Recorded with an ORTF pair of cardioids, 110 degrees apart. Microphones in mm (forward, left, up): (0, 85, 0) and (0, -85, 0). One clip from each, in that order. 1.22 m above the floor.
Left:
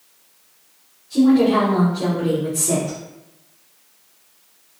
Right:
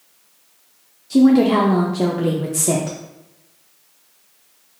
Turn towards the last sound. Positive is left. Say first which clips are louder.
# right 1 dB
turn(degrees=-65)